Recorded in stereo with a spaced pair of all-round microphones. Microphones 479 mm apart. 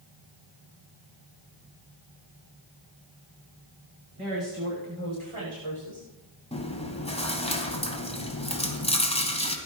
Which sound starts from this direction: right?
A woman speaking, at 4.2 s.